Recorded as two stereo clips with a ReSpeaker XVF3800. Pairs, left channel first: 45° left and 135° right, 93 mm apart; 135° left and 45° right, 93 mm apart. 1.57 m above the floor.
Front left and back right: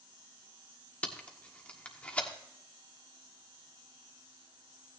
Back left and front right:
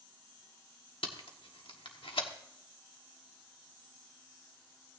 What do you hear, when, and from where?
1.0 s tape being pulled: 120° left, 1.3 m